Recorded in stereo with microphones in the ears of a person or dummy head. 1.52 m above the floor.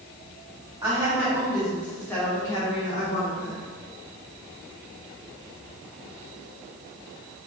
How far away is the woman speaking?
About 1.7 m.